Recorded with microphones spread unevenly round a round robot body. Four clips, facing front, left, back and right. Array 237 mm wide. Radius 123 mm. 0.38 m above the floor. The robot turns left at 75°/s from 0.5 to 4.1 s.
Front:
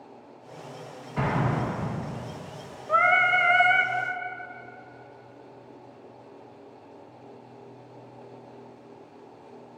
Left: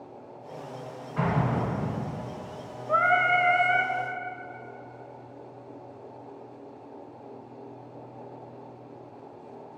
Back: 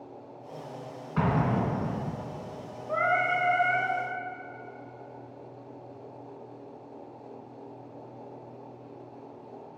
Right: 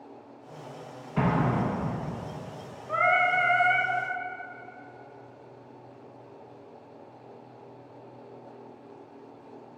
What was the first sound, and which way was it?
An explosion, 130° right.